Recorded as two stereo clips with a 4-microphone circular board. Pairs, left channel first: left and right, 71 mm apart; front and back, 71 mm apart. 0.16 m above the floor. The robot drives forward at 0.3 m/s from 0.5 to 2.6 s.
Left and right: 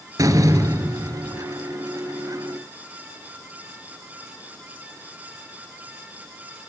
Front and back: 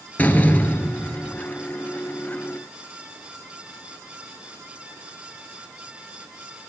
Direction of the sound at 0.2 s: 65° right.